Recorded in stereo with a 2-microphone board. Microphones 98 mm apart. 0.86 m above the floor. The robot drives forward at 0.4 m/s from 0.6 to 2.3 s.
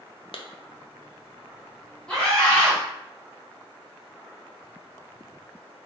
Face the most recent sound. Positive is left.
turn(degrees=10)  # may be behind; listen again after turning